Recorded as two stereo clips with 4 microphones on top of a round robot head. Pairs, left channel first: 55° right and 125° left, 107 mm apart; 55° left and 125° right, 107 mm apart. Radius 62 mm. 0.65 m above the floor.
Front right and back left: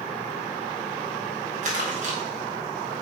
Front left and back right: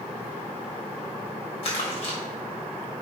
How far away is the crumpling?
About 4 m.